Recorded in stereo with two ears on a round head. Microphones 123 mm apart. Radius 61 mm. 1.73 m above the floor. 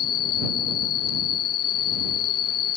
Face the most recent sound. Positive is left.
turn(degrees=75)  # may be behind; listen again after turning